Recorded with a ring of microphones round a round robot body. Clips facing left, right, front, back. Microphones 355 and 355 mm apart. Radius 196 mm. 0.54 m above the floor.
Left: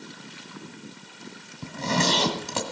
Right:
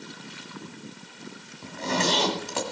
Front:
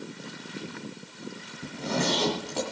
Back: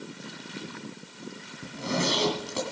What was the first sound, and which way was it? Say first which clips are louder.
A zipper: left 1 dB, front 1 dB; 90° left.